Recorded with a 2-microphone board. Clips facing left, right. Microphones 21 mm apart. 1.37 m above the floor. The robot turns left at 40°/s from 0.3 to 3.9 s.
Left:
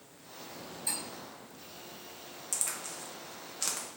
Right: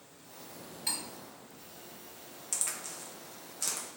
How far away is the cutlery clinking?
About 1.5 m.